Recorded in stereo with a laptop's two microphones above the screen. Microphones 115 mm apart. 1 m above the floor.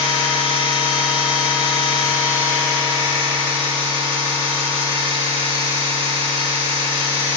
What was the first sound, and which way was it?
A machine running, 45° right (ahead or behind).